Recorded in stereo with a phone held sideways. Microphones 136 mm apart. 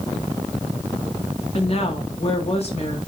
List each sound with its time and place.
1.5 s a woman speaking: 45° left (ahead or behind), 2 m